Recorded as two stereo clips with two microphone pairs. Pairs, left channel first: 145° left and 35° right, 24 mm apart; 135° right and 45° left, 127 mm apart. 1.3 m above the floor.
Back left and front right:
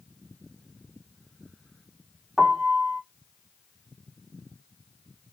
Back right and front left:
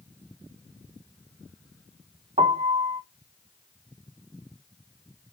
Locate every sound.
2.4 s a piano: 30° left, 0.8 m